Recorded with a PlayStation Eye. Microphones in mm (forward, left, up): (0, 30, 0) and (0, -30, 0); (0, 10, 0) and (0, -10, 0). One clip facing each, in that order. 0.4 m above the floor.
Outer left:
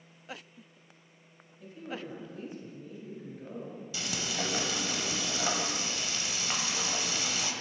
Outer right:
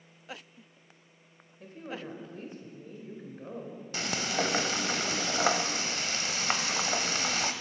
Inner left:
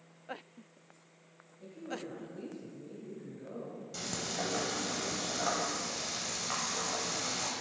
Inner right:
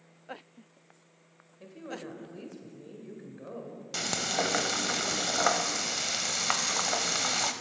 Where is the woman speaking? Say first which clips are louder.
Even, inner right 1 dB; 50° right (ahead or behind), 1.5 m.